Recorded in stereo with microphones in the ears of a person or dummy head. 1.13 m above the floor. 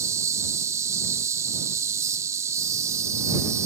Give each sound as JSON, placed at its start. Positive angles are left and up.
{"t": 0.0, "sound": "an insect", "side_deg": -15}